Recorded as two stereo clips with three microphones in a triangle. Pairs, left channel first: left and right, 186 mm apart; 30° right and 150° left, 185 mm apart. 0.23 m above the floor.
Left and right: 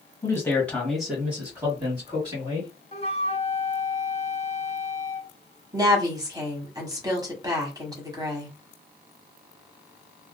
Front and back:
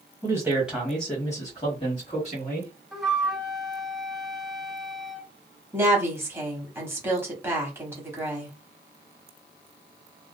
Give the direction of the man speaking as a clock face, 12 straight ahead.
8 o'clock.